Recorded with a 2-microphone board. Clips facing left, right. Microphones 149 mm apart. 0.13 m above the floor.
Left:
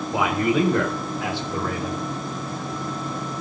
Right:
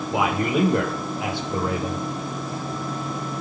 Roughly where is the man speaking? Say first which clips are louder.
Left 1 dB; centre.